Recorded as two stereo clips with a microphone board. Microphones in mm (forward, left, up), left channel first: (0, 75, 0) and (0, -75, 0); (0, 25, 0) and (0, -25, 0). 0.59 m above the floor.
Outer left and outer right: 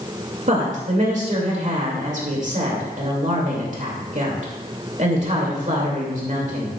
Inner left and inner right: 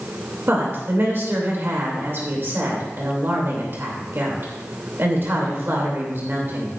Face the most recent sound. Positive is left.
turn(degrees=-55)  # may be behind; listen again after turning